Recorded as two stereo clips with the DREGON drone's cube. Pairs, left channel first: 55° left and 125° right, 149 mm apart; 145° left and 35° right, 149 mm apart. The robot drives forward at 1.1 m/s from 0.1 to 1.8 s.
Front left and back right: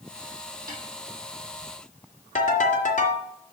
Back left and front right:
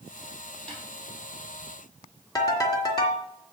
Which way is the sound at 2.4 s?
80° left.